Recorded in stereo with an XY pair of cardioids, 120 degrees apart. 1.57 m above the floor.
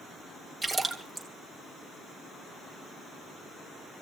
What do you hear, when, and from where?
0.6 s a splash: 5° right, 2.5 m